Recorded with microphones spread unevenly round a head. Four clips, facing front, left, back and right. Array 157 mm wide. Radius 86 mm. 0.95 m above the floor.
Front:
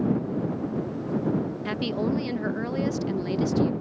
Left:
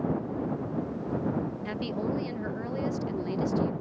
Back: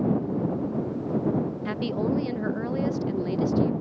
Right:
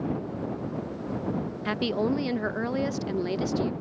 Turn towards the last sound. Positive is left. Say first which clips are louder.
# right 5 dB, front 2 dB
turn(degrees=-60)